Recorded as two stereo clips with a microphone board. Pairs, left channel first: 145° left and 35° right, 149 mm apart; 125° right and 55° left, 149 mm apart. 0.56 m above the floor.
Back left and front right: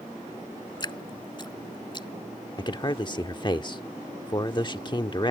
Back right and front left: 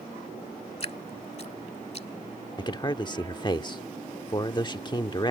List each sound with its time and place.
0.8 s dripping: 160° right
2.6 s a man speaking: 170° right